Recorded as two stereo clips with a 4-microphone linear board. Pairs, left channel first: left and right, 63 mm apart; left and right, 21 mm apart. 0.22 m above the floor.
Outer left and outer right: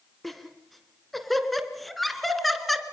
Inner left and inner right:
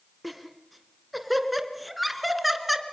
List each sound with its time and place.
0.2 s laughter: centre (ahead or behind), 2 m